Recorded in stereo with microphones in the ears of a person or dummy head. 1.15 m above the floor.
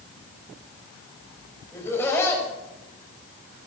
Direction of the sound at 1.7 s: 15° left (ahead or behind).